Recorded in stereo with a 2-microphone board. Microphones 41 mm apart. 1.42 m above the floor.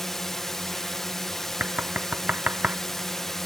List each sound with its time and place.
0.0 s a drone: 10° left (ahead or behind)
1.6 s knocking: 45° right (ahead or behind)